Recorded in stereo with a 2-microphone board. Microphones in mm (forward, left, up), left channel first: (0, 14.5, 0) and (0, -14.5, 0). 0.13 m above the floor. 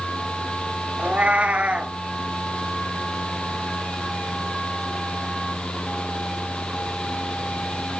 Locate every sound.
1.0 s a cat meowing: 55° right (ahead or behind), 0.6 m